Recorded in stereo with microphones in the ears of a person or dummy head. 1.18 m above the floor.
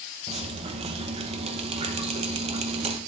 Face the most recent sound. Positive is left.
turn(degrees=-30)  # may be behind; listen again after turning